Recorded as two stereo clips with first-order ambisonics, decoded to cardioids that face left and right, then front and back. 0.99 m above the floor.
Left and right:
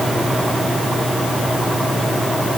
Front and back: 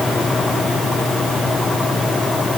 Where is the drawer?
I don't hear a drawer.